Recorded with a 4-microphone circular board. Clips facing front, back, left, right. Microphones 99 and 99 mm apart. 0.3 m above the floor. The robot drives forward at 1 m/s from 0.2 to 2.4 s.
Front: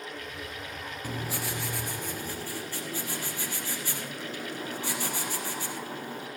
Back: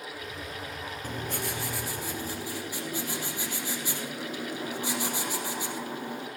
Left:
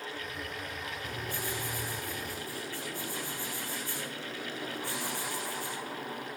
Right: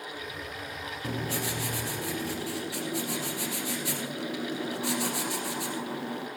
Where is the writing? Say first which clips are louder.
Even, right 8 dB; 80° right, 3.5 m; by 6.3 s 105° right, 3.5 m.